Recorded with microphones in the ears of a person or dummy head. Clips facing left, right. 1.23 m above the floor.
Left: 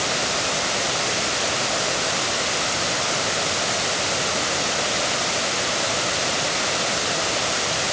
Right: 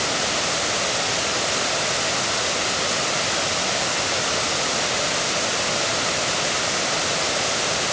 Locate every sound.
Only background noise.